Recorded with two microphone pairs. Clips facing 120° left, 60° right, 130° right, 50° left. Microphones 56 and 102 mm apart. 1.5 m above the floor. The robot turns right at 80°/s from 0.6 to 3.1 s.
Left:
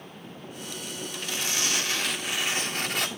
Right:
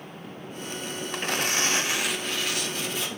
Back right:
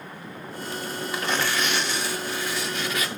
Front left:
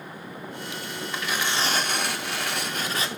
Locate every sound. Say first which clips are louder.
1.1 s tearing paper: right 6 dB, back right 2 dB; 45° right, 0.6 m; by 3.1 s 110° left, 0.6 m